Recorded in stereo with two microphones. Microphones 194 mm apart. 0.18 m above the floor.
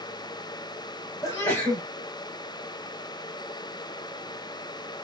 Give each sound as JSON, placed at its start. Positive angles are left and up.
{"t": 1.2, "sound": "a sneeze", "side_deg": 15, "distance_m": 3.0}